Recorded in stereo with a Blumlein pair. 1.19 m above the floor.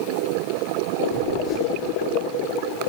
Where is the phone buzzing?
40° left, 7.5 m.